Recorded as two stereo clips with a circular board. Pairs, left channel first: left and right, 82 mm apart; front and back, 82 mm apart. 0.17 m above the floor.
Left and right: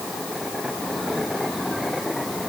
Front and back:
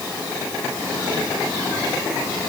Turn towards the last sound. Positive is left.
No sound to turn to.